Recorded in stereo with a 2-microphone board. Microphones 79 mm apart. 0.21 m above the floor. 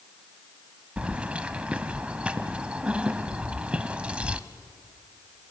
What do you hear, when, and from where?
1.0 s keys jangling: 15° right (ahead or behind), 0.7 m